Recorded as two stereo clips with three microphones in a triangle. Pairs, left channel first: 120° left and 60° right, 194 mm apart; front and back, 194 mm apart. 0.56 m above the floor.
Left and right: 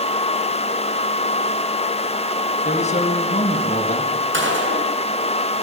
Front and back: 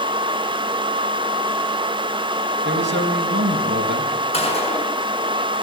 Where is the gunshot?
60° right, 7 m.